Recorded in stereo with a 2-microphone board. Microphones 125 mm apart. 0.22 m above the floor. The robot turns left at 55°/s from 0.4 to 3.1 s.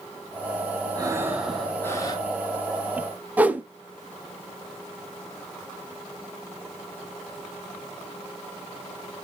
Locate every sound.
0.9 s breathing: 145° right, 2 m; by 2.3 s 140° left, 2 m
3.4 s a whoosh: 15° right (ahead or behind), 0.7 m